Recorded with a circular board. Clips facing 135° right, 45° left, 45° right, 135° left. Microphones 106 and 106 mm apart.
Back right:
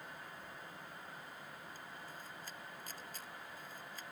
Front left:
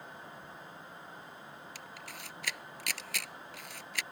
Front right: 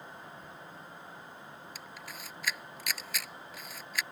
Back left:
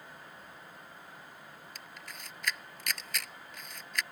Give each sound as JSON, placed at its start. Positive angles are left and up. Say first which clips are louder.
{"t": 1.8, "sound": "a camera shutter", "louder": "front left 3 dB, front right 2 dB", "azimuth_deg": 40}